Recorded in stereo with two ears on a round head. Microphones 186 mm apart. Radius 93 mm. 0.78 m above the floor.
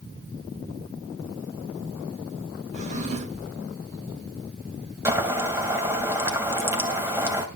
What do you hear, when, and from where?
2.7 s a drawer: 35° right (ahead or behind), 1.4 m
5.0 s boiling: 15° right (ahead or behind), 2.5 m